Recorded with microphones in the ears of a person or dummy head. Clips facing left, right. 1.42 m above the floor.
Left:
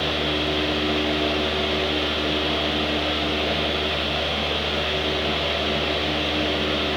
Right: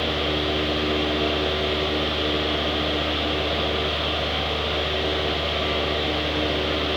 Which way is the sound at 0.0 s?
50° left (ahead or behind).